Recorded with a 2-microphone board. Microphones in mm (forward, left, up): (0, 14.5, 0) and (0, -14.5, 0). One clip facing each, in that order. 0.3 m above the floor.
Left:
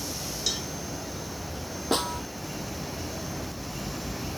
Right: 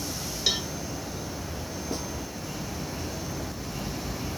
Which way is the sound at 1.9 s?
80° left.